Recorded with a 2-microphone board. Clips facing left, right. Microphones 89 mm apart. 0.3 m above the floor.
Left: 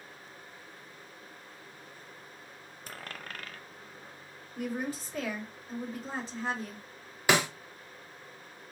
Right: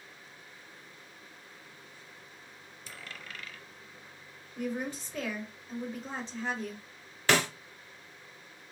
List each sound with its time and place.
2.9 s a dropped coin: 50° left (ahead or behind), 0.5 m
4.6 s a woman speaking: 5° left (ahead or behind), 1.2 m
7.3 s a snare drum: 15° left (ahead or behind), 0.8 m